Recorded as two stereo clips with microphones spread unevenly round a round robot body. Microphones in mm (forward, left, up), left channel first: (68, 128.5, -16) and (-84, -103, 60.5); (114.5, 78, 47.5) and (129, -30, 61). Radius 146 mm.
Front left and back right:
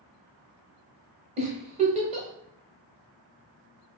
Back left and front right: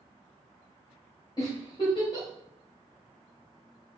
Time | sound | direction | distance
1.4 | a giggle | 165° left | 0.7 m